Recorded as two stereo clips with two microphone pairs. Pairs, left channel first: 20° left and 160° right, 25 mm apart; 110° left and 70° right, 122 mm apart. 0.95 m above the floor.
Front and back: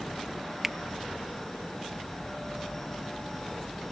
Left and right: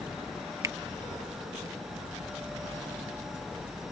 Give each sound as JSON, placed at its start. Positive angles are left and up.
{"t": 0.6, "sound": "a finger snap", "azimuth_deg": -95}